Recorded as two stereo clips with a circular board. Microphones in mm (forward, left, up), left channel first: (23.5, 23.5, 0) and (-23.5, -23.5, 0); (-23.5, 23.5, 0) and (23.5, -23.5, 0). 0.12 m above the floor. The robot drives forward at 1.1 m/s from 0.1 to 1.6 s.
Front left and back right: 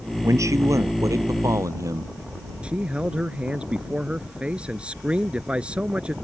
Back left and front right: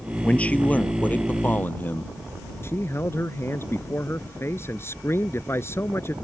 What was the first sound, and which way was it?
A man speaking, 160° right.